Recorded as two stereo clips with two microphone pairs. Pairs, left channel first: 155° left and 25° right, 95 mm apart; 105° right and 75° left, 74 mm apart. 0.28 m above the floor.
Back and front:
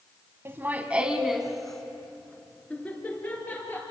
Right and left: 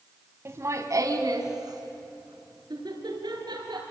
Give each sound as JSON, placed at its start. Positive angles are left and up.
{"t": 0.5, "sound": "laughter", "azimuth_deg": 30, "distance_m": 1.4}